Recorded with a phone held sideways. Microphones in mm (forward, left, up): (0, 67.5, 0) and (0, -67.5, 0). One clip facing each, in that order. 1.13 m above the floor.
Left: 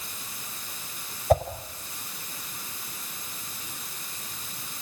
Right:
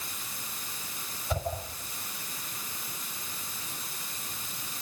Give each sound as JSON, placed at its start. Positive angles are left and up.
{"t": 1.3, "sound": "a whoosh", "side_deg": 55, "distance_m": 5.0}